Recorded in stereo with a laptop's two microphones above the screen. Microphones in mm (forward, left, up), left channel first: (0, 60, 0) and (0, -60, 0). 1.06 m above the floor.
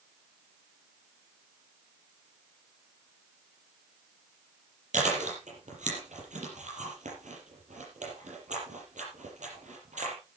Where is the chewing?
80° right, 6.5 m.